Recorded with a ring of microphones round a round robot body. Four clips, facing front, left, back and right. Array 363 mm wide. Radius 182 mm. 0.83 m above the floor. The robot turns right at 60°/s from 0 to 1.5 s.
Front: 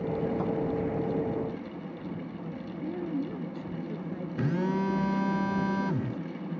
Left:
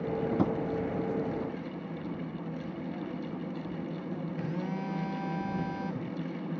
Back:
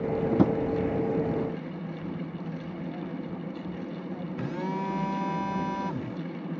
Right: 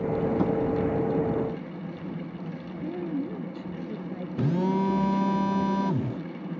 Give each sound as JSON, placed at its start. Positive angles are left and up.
{"t": 0.3, "sound": "a drawer", "azimuth_deg": 175}
{"t": 2.7, "sound": "a woman speaking", "azimuth_deg": -55}
{"t": 4.4, "sound": "a phone buzzing", "azimuth_deg": -65}